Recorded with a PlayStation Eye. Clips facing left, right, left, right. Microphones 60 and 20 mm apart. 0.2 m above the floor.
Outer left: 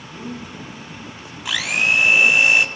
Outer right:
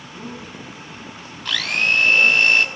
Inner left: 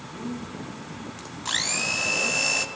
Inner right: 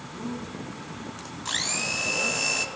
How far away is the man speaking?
About 8.5 m.